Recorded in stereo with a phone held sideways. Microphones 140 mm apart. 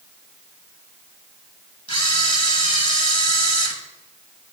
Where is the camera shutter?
40° left (ahead or behind), 1.2 m.